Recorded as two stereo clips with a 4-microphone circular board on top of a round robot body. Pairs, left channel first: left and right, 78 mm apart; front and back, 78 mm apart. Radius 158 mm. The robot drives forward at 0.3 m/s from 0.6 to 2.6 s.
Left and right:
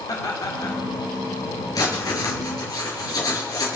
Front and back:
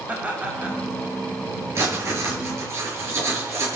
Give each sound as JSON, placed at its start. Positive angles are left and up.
{"t": 0.1, "sound": "laughter", "azimuth_deg": 115, "distance_m": 2.0}
{"t": 1.8, "sound": "writing", "azimuth_deg": 125, "distance_m": 5.0}